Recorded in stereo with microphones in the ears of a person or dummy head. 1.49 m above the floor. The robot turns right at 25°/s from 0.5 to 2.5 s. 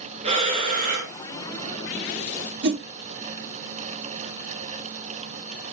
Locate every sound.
0.2 s breathing: 35° right (ahead or behind), 1.0 m; by 1.1 s 50° right (ahead or behind), 1.0 m
2.6 s a whoosh: 60° right (ahead or behind), 1.1 m